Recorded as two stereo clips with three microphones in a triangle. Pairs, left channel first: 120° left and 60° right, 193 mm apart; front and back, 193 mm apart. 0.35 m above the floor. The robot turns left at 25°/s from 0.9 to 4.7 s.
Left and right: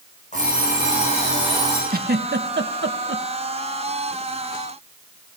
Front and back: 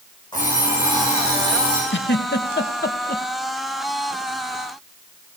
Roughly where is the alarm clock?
Left.